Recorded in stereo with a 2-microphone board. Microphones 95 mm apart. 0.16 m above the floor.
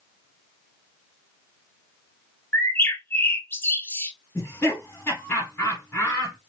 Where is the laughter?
25° left (ahead or behind), 1.4 m.